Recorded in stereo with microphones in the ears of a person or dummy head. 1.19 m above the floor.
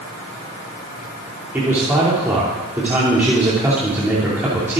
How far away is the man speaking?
About 2.5 m.